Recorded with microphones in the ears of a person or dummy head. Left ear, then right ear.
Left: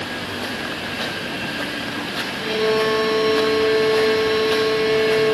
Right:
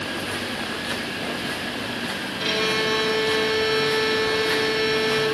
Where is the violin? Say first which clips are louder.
Left 3 dB; 60° right (ahead or behind), 3 m.